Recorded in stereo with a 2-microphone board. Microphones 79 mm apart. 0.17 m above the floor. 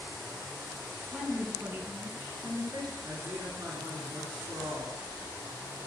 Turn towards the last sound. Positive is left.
turn(degrees=-45)  # may be behind; listen again after turning